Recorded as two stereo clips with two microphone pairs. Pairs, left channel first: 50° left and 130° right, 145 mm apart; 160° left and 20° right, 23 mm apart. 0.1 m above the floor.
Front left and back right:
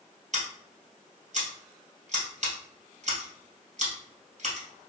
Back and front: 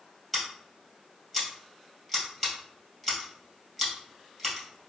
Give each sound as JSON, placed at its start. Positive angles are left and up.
{"t": 0.3, "sound": "scissors", "azimuth_deg": -120, "distance_m": 2.0}